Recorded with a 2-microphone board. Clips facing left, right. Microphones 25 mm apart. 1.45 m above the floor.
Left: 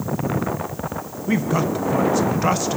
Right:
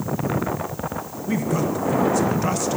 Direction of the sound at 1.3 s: 20° left (ahead or behind).